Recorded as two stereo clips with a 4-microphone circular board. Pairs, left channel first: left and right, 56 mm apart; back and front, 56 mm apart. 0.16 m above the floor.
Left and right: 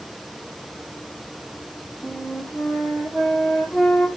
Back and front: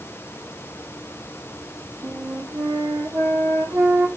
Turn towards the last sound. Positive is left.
turn(degrees=-10)